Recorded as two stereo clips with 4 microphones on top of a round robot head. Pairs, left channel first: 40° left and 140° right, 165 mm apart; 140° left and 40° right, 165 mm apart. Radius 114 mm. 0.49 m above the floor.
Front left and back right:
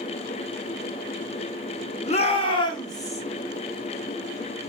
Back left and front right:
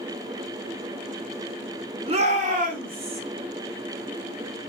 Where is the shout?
Straight ahead, 1.6 m; by 3.2 s 30° right, 2.5 m.